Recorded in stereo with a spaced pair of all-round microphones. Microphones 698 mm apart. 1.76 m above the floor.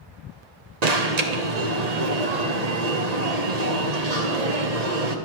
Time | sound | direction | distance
0.8 | an alarm | 65° right (ahead or behind) | 1.1 m